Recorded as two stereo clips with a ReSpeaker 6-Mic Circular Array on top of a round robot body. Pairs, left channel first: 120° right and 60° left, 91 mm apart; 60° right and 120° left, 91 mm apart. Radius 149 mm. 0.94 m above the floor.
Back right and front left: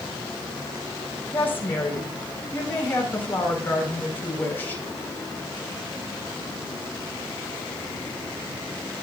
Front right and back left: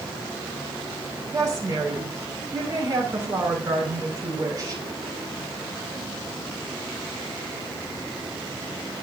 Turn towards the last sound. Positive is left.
turn(degrees=170)